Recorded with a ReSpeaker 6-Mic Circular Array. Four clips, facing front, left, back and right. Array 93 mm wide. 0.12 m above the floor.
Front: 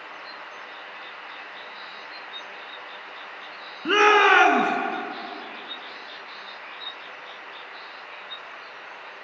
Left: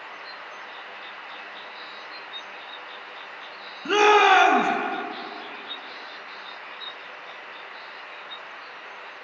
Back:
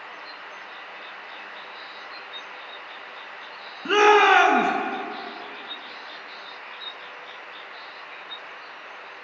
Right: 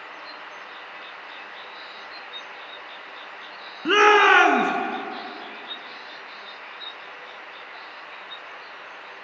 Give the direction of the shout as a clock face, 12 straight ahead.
2 o'clock.